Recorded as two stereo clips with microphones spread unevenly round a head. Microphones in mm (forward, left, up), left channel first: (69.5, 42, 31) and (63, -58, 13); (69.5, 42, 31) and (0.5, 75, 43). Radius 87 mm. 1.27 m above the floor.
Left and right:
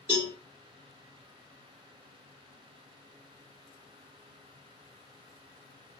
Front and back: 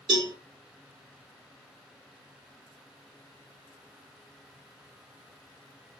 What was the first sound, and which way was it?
A cowbell, 175° right.